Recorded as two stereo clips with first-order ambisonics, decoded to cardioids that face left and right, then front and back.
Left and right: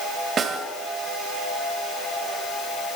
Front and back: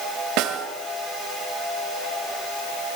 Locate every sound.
0.4 s a snare drum: 155° right, 1.7 m